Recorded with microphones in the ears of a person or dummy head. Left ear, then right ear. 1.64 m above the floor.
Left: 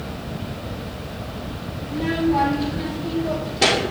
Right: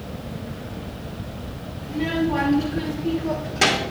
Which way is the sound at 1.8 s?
40° right (ahead or behind).